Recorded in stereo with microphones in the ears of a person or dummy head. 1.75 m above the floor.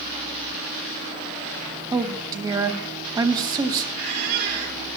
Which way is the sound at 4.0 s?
60° right (ahead or behind).